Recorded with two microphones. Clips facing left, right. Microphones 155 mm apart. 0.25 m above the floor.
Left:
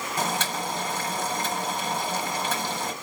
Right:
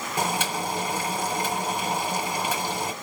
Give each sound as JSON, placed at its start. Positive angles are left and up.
{"t": 0.2, "sound": "boiling", "side_deg": -10, "distance_m": 1.4}